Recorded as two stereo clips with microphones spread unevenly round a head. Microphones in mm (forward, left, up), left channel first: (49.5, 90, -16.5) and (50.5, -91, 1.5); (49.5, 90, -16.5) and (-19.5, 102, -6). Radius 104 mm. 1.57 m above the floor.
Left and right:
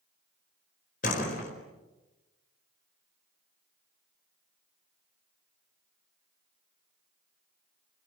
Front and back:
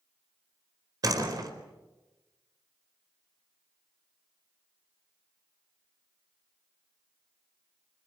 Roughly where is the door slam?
Behind left.